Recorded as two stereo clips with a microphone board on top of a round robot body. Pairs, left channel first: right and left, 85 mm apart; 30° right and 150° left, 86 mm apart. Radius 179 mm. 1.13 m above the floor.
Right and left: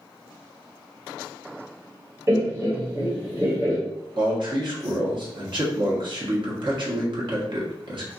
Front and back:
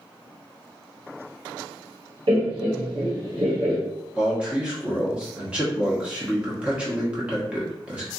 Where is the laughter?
150° left, 1.1 m.